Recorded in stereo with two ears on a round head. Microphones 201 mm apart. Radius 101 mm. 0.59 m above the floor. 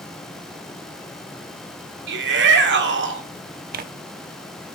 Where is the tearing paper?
40° right (ahead or behind), 0.8 m.